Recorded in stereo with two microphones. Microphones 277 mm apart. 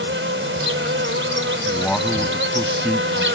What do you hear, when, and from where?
0.0 s an insect: 45° right (ahead or behind)
1.7 s a man speaking: 5° left (ahead or behind)